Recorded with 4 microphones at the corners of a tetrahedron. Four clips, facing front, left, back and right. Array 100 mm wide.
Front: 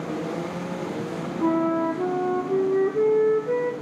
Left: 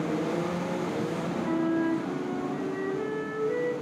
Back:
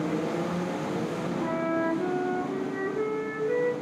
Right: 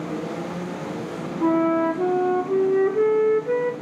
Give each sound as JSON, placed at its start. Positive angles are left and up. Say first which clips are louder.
{"t": 1.4, "sound": "a flute", "louder": "right 8 dB, front 7 dB", "azimuth_deg": -65, "distance_m": 1.1}